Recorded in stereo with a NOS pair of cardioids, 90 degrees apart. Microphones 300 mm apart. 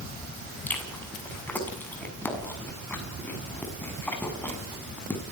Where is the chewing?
5° left, 6.5 m.